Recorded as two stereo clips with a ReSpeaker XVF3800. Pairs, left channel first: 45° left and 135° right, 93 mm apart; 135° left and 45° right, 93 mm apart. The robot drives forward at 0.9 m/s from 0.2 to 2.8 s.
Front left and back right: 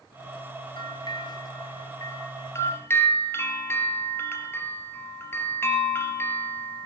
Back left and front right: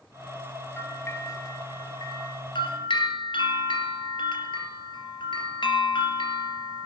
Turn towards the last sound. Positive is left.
turn(degrees=110)